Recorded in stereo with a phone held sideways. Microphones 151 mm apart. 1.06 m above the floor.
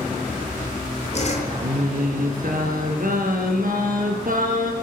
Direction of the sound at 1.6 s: 65° right (ahead or behind).